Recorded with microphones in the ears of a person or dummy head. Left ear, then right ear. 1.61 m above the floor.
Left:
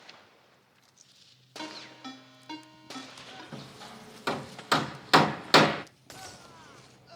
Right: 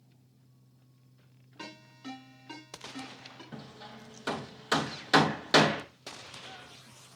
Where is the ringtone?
35° left (ahead or behind), 3 m.